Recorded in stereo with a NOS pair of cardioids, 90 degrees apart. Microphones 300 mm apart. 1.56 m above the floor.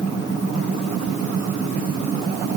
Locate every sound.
Only background noise.